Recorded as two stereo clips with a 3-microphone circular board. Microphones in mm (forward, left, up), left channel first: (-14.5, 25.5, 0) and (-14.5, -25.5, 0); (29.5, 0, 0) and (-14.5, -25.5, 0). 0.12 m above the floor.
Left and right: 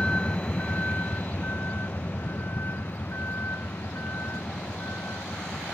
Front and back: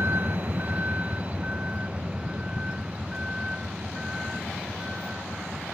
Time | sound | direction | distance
0.0 | a vehicle | 160° left | ?